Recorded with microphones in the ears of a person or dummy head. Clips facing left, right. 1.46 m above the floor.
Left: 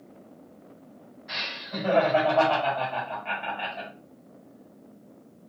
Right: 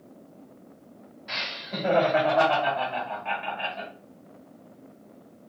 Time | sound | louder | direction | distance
1.3 | laughter | right 1 dB | 40° right (ahead or behind) | 1.4 m